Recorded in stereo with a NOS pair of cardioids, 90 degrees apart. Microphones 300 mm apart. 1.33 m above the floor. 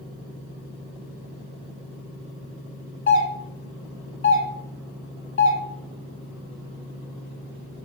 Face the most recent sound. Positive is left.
turn(degrees=45)